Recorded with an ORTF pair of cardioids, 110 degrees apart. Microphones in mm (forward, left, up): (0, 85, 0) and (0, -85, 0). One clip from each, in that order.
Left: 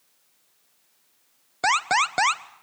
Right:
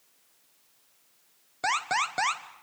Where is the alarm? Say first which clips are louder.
Left 6 dB; 35° left, 1.0 m.